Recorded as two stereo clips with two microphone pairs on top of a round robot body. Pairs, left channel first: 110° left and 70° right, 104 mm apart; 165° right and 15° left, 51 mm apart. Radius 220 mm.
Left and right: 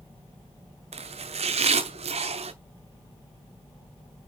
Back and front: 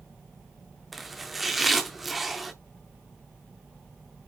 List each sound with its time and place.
0.9 s chopping: 75° right, 0.7 m